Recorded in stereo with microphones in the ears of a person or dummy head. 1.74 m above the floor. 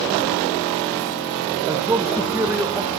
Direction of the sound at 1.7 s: 10° right (ahead or behind).